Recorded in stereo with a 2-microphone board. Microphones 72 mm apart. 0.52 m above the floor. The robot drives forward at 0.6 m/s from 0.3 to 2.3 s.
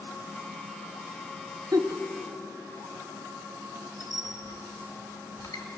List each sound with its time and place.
1.7 s a giggle: 60° right (ahead or behind), 1.0 m; by 2.0 s 70° right (ahead or behind), 0.9 m
4.0 s a squeak: 65° left (ahead or behind), 2.5 m